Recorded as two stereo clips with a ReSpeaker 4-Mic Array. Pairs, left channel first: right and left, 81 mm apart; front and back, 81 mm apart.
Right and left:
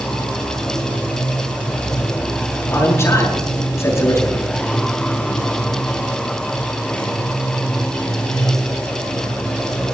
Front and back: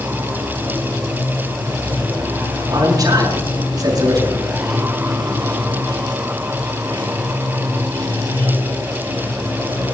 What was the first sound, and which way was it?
Running water, 160° right.